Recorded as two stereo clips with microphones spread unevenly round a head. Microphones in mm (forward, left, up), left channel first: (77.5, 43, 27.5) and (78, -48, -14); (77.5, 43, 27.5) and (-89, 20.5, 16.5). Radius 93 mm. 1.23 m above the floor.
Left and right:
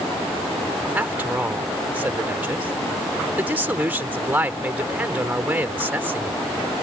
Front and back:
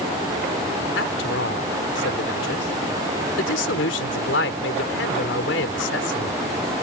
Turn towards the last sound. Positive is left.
turn(degrees=-15)